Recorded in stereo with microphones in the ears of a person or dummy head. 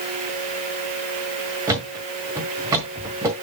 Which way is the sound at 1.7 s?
15° right (ahead or behind).